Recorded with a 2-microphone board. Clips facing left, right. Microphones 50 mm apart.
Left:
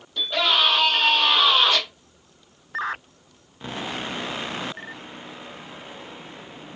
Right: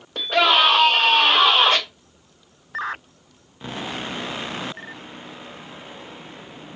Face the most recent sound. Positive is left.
turn(degrees=-45)  # may be behind; listen again after turning